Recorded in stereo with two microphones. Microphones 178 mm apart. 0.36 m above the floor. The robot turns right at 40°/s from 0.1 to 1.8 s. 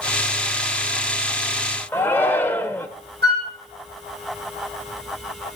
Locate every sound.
1.9 s a shout: 10° left (ahead or behind), 0.8 m
3.2 s a flute: 70° right (ahead or behind), 4 m